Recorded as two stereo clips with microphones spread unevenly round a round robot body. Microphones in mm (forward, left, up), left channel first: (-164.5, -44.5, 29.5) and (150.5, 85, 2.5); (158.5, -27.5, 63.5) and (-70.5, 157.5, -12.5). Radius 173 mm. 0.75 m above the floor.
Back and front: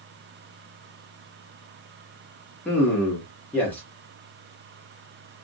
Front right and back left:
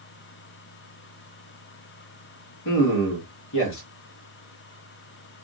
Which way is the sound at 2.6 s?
70° right.